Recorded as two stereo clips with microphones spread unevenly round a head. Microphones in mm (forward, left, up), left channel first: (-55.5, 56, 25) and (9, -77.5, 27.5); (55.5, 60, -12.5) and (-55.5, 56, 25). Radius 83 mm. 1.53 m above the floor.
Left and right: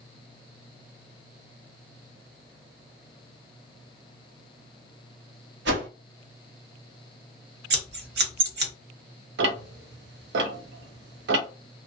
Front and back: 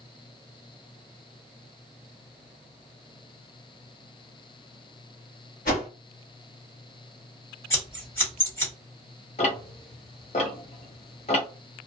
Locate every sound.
5.7 s a whoosh: 45° right, 1.0 m
7.7 s scissors: 65° right, 1.1 m
9.4 s ticking: 45° right, 0.6 m